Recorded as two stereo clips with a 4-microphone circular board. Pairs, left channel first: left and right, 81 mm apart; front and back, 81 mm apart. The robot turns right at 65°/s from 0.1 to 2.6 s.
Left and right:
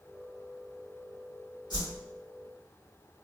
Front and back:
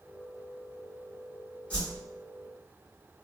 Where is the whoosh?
70° left, 2 m; by 2.0 s 95° left, 2 m.